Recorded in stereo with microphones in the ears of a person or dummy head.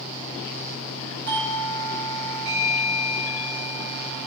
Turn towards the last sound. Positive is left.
turn(degrees=-75)  # may be behind; listen again after turning